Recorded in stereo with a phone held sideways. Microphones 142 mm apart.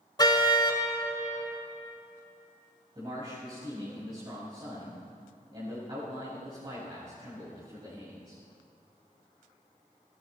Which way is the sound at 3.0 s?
40° right (ahead or behind).